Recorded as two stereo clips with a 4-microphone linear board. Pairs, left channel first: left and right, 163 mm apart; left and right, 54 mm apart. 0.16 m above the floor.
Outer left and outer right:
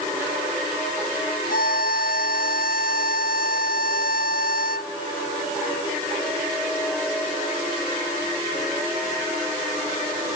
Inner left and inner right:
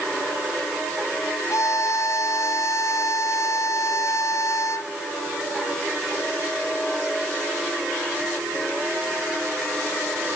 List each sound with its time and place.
1.5 s a violin: 65° left (ahead or behind)